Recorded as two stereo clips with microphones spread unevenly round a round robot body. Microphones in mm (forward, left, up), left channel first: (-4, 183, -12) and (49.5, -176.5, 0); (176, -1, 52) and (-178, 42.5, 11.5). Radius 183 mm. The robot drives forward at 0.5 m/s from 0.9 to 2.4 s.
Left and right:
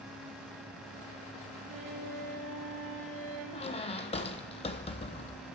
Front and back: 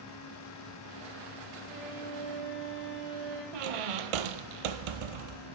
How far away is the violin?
About 5 m.